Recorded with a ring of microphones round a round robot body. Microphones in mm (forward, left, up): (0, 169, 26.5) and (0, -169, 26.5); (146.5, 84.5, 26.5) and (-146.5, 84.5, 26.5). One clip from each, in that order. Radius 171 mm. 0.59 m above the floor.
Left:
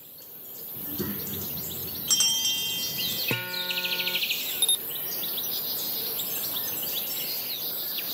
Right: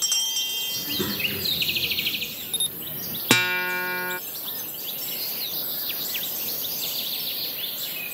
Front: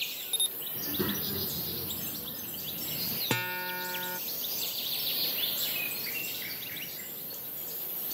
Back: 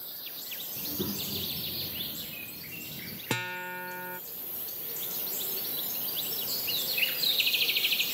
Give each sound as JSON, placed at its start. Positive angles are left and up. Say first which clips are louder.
{"t": 0.8, "sound": "a child speaking", "louder": "right 10 dB, front 2 dB", "azimuth_deg": -40}
{"t": 3.3, "sound": "a guitar", "louder": "right 8 dB, back 1 dB", "azimuth_deg": -90}